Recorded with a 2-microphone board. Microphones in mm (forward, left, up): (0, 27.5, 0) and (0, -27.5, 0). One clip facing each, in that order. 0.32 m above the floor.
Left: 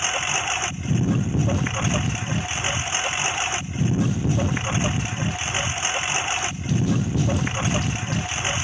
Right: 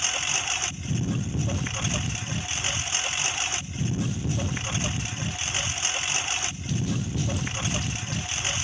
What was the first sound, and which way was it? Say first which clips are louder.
A lawn mower: left 5 dB; 30° left (ahead or behind).